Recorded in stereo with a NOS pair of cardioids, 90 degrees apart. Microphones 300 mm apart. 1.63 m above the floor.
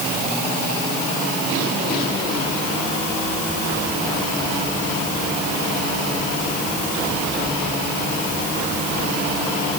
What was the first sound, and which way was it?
Only background noise.